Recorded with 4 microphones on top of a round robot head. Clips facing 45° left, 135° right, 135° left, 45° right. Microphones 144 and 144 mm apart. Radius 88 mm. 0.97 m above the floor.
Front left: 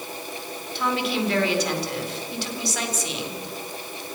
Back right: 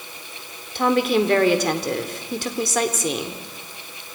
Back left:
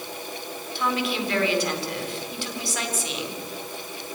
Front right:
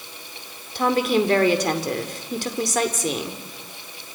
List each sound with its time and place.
0.8 s a woman speaking: 90° right, 4 m